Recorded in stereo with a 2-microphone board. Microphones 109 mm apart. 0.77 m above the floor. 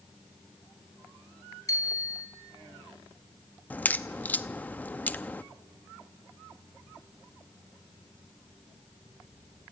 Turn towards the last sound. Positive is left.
turn(degrees=15)  # may be behind; listen again after turning